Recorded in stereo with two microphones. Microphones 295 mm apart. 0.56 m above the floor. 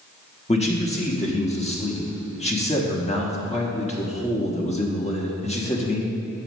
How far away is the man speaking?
About 1.0 m.